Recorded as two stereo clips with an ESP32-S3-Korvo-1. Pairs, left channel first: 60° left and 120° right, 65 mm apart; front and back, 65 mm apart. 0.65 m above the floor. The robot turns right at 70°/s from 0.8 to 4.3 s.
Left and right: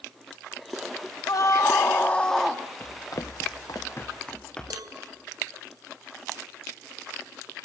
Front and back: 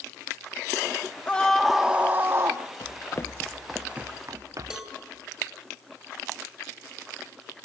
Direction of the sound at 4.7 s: 100° right.